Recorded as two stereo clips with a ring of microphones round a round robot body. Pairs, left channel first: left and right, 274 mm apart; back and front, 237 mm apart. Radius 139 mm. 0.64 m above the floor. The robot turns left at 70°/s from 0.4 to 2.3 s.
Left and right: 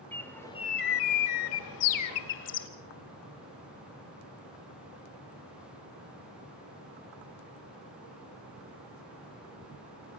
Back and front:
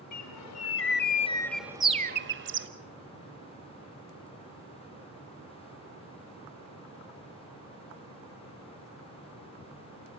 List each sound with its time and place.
0.1 s a bird: 175° left, 1.6 m; by 2.7 s 40° left, 1.6 m